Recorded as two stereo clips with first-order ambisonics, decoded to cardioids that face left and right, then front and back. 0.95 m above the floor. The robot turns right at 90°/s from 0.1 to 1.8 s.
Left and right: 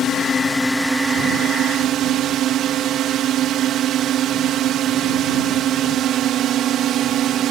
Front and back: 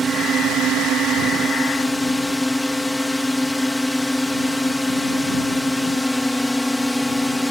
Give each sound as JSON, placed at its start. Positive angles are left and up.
{"t": 0.0, "sound": "a drone", "azimuth_deg": 120}